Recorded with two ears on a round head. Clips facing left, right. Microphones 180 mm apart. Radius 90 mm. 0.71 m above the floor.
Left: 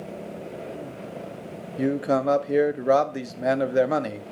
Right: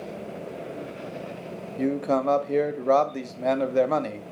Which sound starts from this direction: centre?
A man speaking, at 1.8 s.